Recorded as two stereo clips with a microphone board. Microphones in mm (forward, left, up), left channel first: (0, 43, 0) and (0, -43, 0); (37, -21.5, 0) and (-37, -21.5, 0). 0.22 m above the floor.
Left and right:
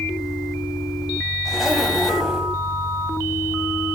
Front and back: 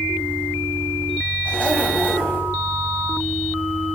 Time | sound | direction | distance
1.4 | a zipper | 10° right | 1.5 m